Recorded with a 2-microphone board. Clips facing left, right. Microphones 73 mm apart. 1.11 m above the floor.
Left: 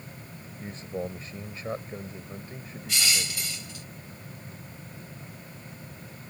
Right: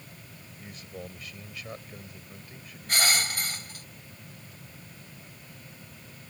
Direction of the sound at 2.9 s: 50° right (ahead or behind).